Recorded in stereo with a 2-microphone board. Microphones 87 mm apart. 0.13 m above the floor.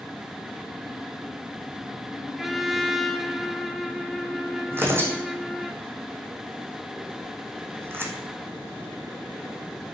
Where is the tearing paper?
30° right (ahead or behind), 1.5 m.